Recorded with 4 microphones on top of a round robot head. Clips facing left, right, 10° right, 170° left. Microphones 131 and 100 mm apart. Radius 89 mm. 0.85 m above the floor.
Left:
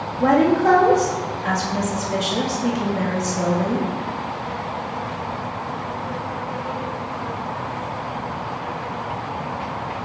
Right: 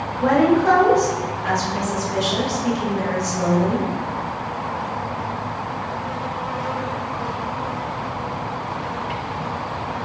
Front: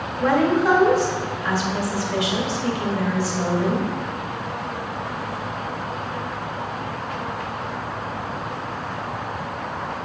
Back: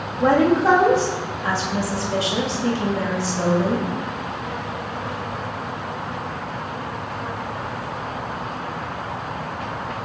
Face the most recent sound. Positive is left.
turn(degrees=115)